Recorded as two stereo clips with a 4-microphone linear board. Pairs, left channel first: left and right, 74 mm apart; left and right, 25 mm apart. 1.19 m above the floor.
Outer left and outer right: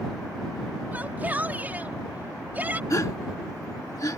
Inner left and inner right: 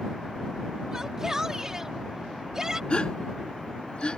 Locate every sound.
0.9 s a shout: 25° right (ahead or behind)
2.9 s a gasp: 50° left (ahead or behind)